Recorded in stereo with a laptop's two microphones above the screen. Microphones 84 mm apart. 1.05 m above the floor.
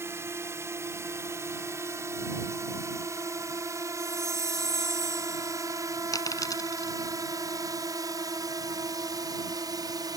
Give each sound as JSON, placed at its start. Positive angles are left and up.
{"t": 0.0, "sound": "a drone", "side_deg": -30}
{"t": 4.0, "sound": "a chime", "side_deg": 5}
{"t": 6.1, "sound": "a dropped coin", "side_deg": 50}